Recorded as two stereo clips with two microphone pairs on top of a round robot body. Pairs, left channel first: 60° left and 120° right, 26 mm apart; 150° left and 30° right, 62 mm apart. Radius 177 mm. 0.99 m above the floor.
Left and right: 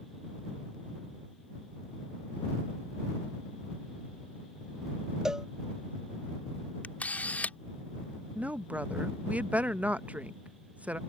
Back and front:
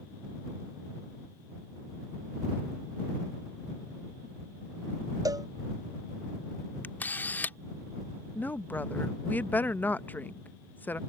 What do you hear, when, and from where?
5.2 s a cowbell: 50° right
6.8 s a camera shutter: 90° left
8.3 s a woman speaking: 145° right